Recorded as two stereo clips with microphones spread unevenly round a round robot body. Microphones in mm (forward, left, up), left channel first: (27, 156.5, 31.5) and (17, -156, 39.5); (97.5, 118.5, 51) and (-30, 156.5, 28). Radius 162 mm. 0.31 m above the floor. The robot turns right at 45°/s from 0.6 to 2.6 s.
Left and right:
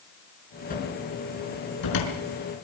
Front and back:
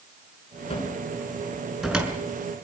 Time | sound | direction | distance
0.7 | a cupboard door | 25° left | 5 m